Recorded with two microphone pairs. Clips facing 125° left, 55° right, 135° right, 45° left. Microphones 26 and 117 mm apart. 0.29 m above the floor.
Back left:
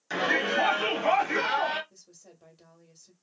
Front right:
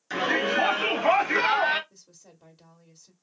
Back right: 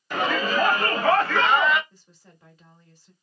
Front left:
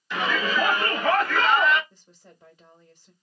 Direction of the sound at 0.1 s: 155° right.